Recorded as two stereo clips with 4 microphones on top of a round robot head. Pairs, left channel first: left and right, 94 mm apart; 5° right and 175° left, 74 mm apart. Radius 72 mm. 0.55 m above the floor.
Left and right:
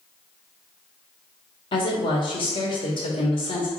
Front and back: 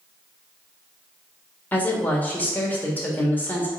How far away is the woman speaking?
About 1.5 m.